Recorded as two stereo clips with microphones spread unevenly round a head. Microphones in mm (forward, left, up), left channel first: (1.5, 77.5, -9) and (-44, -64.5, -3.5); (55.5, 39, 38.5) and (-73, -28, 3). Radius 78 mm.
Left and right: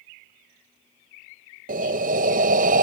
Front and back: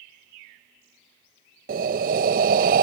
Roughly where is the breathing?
Behind right.